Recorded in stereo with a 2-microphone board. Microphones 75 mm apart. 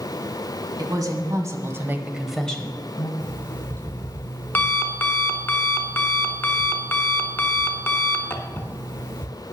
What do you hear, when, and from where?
0.8 s a woman speaking: 60° right (ahead or behind), 1.7 m; by 3.1 s 40° left (ahead or behind), 1.1 m
3.2 s an alarm clock: 30° left (ahead or behind), 1.1 m